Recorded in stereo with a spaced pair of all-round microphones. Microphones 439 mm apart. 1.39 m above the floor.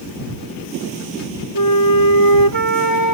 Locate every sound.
1.6 s a flute: 50° left (ahead or behind)